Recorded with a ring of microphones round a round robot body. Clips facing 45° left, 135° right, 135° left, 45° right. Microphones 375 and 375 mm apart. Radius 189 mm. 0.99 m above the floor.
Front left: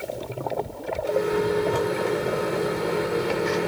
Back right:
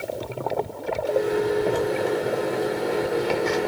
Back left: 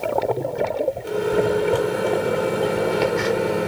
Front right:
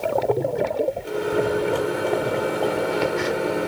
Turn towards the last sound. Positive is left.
turn(degrees=125)